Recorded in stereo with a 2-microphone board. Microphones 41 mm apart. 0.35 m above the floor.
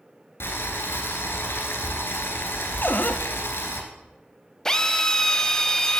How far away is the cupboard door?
About 0.6 m.